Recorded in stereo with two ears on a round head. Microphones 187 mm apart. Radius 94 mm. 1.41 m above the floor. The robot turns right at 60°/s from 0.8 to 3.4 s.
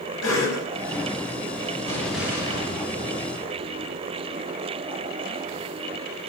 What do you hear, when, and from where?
0.2 s a cough: 80° left, 9 m
1.9 s an explosion: 165° left, 4 m; by 4.2 s 105° right, 4 m